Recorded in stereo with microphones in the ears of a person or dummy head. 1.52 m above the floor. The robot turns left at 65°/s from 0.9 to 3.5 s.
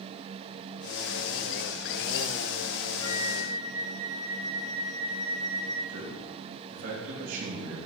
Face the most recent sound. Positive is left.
turn(degrees=-70)  # may be behind; listen again after turning